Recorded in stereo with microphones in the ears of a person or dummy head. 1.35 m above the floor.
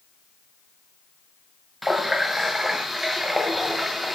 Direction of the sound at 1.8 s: Centre (ahead or behind).